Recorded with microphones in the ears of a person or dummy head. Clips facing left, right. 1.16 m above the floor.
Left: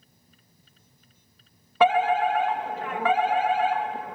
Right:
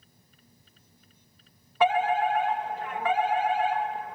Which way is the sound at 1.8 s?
55° left (ahead or behind).